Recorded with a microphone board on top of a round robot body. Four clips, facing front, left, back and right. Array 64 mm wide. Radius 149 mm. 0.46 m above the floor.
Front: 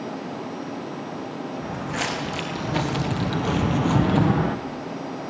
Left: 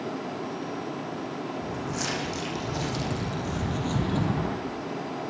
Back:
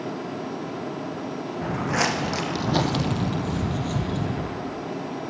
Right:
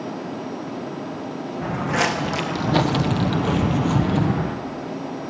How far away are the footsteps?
About 2.5 m.